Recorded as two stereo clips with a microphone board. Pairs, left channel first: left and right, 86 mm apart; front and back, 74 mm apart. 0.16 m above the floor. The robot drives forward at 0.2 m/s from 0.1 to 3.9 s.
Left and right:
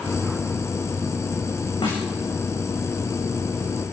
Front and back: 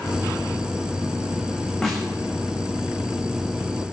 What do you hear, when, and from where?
1.8 s a snare drum: 85° left, 7 m